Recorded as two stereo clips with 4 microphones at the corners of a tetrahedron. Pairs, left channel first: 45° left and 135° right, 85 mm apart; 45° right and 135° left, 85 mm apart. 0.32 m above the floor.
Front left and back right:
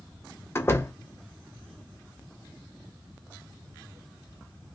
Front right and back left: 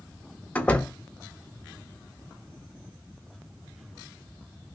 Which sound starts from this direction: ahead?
A door slam, at 0.6 s.